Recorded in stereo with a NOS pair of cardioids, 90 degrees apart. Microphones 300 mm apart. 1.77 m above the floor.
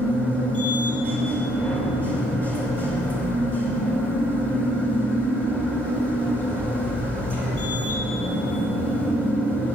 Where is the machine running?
5° left, 3 m.